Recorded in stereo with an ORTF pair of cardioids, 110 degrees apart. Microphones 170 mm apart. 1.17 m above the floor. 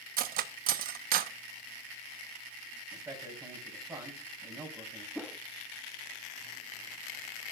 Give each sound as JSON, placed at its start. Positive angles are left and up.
{"t": 0.2, "sound": "cutlery clinking", "azimuth_deg": -60, "distance_m": 0.9}
{"t": 2.9, "sound": "a man speaking", "azimuth_deg": -20, "distance_m": 6.5}
{"t": 5.2, "sound": "a whoosh", "azimuth_deg": 5, "distance_m": 1.3}